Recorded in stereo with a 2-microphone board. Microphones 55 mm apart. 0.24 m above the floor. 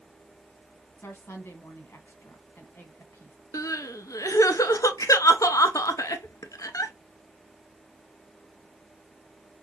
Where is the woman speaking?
40° left (ahead or behind), 1.7 m.